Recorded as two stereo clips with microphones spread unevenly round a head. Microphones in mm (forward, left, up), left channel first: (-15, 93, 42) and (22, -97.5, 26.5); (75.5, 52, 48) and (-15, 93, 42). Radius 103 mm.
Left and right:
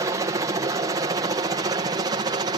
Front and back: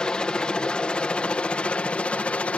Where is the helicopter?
95° right; by 2.6 s 90° right.